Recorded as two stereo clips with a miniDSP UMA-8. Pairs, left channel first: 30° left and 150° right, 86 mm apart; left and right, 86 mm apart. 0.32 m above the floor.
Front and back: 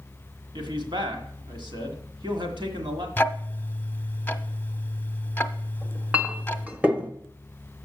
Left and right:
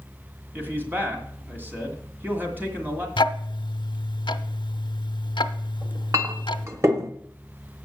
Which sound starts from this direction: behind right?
A man speaking, at 0.5 s.